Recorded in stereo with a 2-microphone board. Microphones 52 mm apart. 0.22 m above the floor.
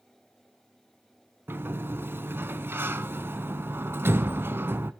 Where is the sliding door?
50° right (ahead or behind), 0.7 m.